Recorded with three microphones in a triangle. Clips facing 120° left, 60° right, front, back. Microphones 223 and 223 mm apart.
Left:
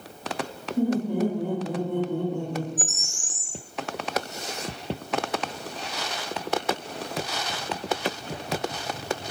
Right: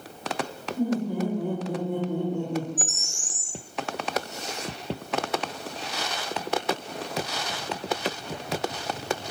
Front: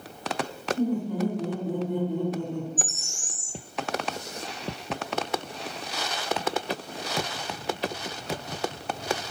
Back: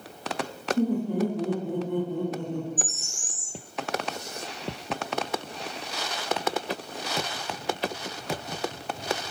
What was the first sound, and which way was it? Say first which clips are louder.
Laughter: left 3 dB, back 2 dB; 175° left.